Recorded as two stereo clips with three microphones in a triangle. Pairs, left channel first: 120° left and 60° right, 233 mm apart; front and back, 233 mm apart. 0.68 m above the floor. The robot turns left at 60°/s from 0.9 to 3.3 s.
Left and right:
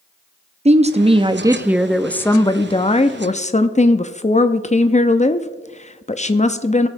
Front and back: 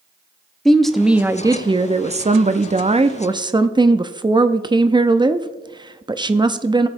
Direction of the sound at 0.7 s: 90° right.